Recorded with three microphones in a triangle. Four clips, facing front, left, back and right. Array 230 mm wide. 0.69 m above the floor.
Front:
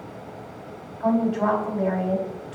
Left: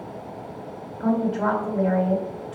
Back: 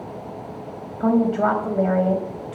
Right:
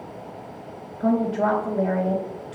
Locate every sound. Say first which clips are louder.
1.0 s a woman speaking: right 1 dB, back 3 dB; 170° right, 2.5 m